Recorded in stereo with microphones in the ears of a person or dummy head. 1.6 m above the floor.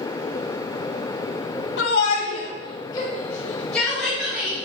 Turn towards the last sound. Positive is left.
turn(degrees=-5)  # may be behind; listen again after turning